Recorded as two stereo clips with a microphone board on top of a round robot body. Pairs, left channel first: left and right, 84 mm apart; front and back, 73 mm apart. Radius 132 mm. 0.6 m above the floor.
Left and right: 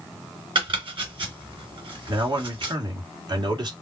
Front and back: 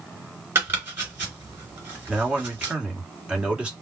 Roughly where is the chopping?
Behind right.